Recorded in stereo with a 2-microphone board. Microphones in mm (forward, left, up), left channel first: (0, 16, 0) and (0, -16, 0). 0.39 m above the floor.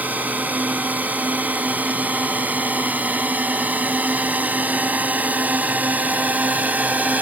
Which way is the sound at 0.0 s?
60° right (ahead or behind).